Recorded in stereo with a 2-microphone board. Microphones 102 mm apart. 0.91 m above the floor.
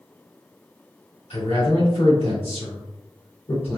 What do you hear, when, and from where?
1.3 s a man speaking: 80° left, 2 m